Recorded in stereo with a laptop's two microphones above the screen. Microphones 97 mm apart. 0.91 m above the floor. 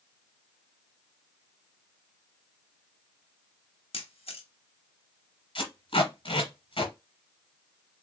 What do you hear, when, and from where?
3.9 s a camera shutter: 70° left (ahead or behind), 1.0 m
5.5 s tape being pulled: 60° left (ahead or behind), 1.6 m